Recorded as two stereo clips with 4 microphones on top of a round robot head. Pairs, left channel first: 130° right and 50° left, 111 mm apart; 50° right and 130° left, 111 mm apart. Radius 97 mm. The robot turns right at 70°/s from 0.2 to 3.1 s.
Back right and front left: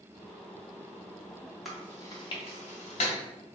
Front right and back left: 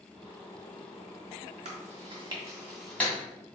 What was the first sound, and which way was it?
Chewing, 140° left.